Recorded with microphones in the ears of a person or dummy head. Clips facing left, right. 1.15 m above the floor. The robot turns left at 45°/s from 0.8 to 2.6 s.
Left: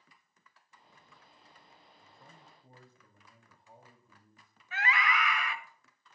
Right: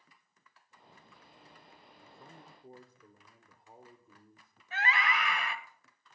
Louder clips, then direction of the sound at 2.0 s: Right 5 dB; 20° right (ahead or behind).